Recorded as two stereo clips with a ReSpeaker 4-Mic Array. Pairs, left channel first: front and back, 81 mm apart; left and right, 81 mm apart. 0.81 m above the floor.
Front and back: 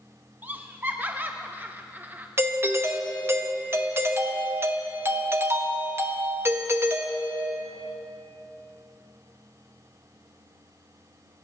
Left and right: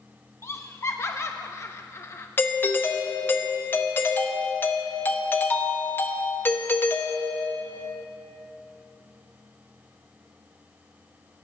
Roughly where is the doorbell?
Behind left.